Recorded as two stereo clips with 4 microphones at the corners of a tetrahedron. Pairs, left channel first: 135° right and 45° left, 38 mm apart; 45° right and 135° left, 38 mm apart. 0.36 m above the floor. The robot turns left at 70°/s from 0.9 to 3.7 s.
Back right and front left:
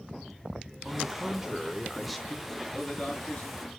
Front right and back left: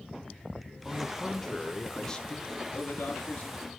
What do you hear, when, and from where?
0.8 s a man speaking: 40° left, 0.8 m; by 2.6 s 80° right, 0.8 m
2.7 s a man speaking: 45° right, 6 m; by 3.7 s 115° right, 6 m